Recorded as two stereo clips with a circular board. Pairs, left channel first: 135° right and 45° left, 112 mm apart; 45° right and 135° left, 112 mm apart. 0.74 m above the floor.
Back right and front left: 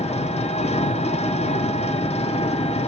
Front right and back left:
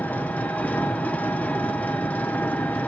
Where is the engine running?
120° right, 0.8 m.